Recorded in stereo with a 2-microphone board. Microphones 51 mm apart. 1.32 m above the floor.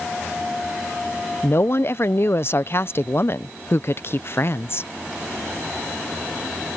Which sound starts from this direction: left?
A woman speaking, at 1.4 s.